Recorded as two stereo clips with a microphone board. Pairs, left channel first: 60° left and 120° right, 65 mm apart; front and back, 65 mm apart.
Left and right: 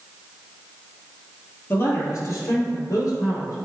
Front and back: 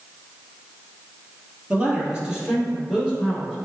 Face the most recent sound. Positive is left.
turn(degrees=95)